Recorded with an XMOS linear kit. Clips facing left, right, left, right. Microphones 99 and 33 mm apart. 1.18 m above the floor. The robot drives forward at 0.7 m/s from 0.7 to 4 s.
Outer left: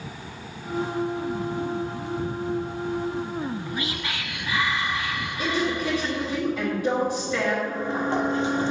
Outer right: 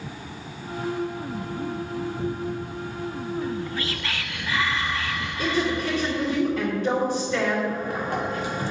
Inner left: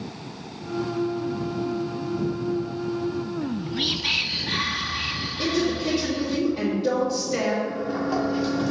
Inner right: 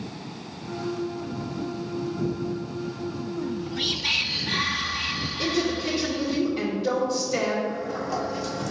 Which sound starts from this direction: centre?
A woman speaking, at 5.4 s.